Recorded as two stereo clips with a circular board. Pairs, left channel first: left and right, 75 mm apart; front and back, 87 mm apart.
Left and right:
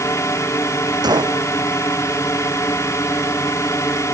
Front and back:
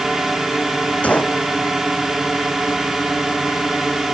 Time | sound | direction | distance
0.0 | a drone | 100° left | ?
1.0 | a gunshot | 75° right | ?